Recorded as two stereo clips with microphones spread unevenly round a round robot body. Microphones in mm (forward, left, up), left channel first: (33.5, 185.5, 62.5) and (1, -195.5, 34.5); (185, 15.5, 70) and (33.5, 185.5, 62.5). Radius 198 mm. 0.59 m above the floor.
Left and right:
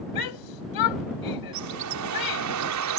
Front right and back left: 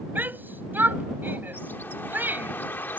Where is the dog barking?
I don't hear a dog barking.